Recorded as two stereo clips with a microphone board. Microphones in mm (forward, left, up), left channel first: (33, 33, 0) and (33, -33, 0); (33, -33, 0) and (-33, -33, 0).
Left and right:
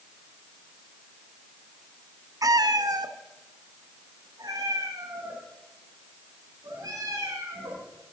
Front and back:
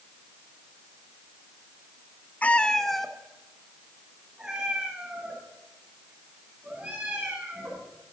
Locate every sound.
2.4 s a cat meowing: 65° right, 0.5 m; by 7.9 s 110° right, 4.5 m